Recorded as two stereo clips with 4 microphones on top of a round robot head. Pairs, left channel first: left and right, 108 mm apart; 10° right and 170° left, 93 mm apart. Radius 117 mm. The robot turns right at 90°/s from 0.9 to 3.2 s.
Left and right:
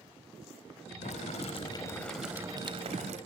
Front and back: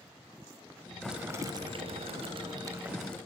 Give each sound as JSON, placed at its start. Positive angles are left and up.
{"t": 1.0, "sound": "boiling", "azimuth_deg": 75, "distance_m": 3.5}